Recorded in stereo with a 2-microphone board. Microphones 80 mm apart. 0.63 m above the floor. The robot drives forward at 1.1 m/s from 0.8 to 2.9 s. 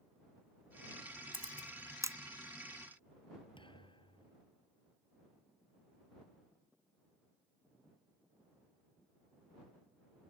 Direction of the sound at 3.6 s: 75° left (ahead or behind).